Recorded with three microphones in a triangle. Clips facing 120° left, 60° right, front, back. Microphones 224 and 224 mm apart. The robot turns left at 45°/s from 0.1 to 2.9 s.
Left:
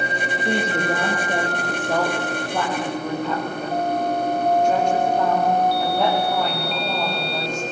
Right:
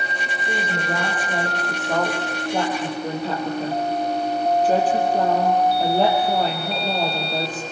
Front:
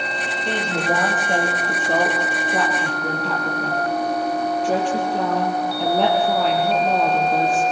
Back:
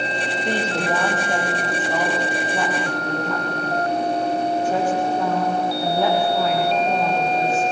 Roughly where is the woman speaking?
Left.